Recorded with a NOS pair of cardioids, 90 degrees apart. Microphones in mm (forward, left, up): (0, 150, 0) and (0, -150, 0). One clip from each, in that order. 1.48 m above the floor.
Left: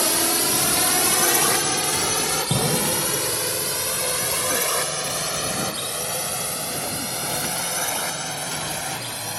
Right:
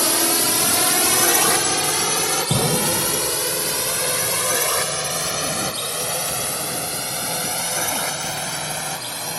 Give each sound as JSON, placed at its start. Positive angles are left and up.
{"t": 0.0, "sound": "a drone", "azimuth_deg": -20}
{"t": 2.5, "sound": "an explosion", "azimuth_deg": -20}